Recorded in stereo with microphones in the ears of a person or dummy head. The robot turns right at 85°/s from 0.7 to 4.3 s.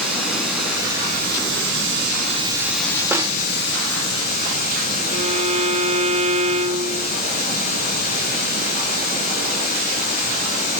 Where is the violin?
30° right (ahead or behind), 1.4 m.